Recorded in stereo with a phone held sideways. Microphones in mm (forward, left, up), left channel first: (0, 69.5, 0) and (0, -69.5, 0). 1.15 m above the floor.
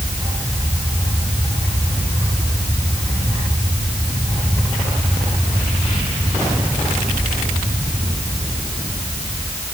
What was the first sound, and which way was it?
Only background noise.